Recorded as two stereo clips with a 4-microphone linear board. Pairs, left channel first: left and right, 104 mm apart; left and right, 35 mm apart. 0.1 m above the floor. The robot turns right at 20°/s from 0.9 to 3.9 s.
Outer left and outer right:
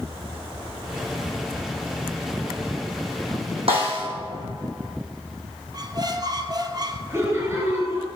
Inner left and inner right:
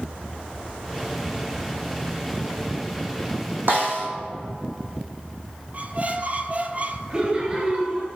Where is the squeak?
45° right (ahead or behind), 0.7 m.